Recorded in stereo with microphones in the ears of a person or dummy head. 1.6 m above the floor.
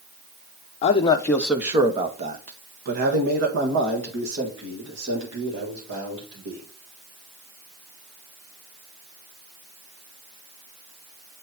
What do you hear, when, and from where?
0.8 s a man speaking: 35° left (ahead or behind), 0.8 m; by 6.6 s 80° right, 3.5 m